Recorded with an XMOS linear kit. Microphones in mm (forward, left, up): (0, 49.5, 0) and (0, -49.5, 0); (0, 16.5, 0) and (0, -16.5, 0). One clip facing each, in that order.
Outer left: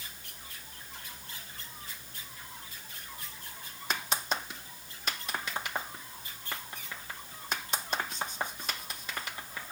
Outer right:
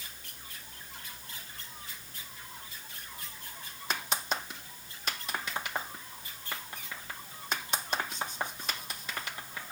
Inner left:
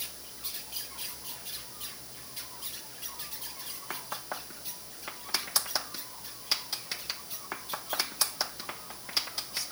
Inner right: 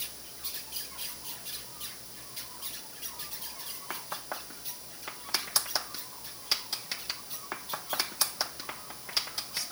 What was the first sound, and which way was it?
Only background noise.